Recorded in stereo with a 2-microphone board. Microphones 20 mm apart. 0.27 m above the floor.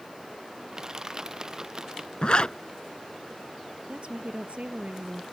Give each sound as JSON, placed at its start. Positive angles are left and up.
{"t": 0.7, "sound": "crushing", "side_deg": -30}
{"t": 2.2, "sound": "a zipper", "side_deg": 45}
{"t": 3.9, "sound": "a woman speaking", "side_deg": -65}